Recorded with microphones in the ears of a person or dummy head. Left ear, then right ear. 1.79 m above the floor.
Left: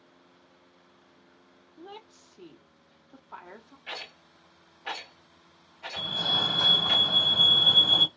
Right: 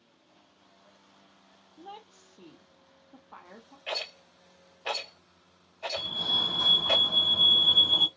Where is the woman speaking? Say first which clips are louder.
Even; 5° left (ahead or behind), 0.9 m.